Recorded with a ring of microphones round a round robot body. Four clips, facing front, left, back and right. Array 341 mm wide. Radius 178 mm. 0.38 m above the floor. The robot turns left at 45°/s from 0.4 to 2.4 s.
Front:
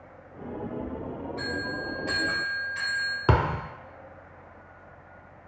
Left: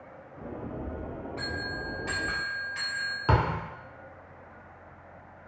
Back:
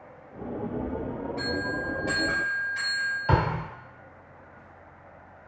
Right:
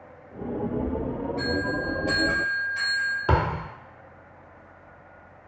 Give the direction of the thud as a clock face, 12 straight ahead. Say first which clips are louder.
Right 1 dB, front 1 dB; 12 o'clock.